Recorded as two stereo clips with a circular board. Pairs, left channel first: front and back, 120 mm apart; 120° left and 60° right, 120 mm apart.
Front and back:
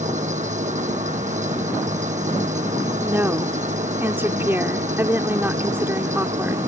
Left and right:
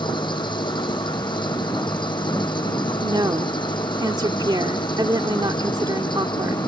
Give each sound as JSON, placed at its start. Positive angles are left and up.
{"t": 0.0, "sound": "an engine running", "azimuth_deg": 170}
{"t": 3.0, "sound": "a woman speaking", "azimuth_deg": -110}